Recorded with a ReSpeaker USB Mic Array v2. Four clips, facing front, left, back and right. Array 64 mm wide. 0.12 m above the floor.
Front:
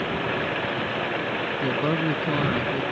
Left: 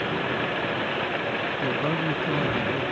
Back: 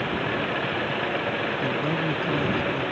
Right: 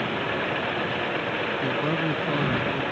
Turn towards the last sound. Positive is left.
turn(degrees=-5)